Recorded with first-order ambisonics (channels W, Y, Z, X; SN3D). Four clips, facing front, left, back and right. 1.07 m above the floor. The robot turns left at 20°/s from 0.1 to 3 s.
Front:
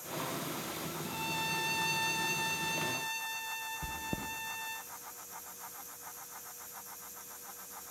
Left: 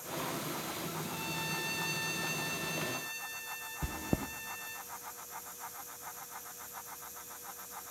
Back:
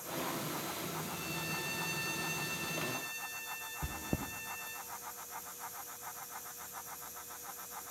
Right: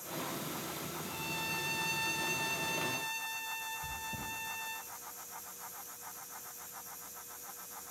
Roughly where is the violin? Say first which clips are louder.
Right 2 dB, front 4 dB; ahead.